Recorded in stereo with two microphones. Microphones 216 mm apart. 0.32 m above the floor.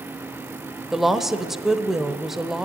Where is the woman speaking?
Centre (ahead or behind), 1.1 m.